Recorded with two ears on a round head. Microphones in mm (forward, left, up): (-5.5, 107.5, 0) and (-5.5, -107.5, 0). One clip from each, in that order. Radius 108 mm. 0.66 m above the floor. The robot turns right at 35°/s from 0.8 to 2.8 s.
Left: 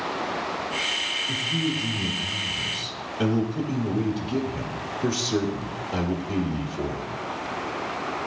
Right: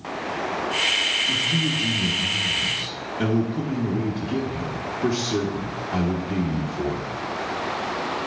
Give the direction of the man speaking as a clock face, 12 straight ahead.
1 o'clock.